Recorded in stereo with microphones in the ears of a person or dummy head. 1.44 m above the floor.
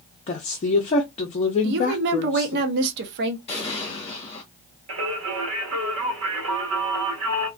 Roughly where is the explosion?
Left.